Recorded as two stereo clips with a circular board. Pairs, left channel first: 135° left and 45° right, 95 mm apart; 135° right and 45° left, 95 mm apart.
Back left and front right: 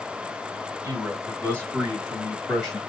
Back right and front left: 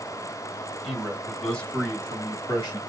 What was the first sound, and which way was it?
A man speaking, 25° right.